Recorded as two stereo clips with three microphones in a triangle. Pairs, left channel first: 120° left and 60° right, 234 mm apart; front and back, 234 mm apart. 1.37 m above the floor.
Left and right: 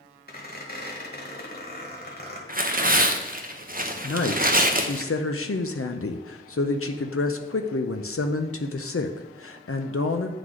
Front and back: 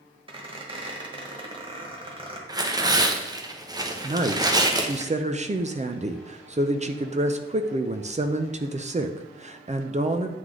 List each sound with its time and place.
0.3 s a squeak: 125° left, 1.4 m
2.5 s tearing paper: 110° right, 0.7 m
4.0 s a woman speaking: 120° left, 0.6 m